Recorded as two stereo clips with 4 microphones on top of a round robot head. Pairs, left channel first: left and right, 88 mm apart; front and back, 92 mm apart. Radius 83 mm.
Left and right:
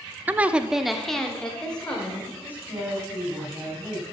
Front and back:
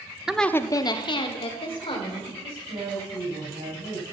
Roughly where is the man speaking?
Behind.